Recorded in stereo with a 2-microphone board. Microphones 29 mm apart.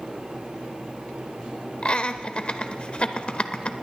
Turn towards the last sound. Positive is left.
turn(degrees=40)  # may be behind; listen again after turning